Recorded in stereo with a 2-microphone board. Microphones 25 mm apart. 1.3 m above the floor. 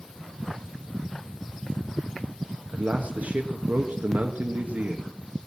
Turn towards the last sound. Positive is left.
turn(degrees=-80)